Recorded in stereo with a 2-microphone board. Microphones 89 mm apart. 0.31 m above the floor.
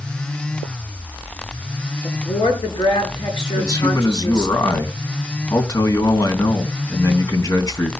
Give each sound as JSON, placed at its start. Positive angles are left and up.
{"t": 2.0, "sound": "a woman speaking", "side_deg": 60, "distance_m": 5.5}
{"t": 3.6, "sound": "a man speaking", "side_deg": 40, "distance_m": 3.0}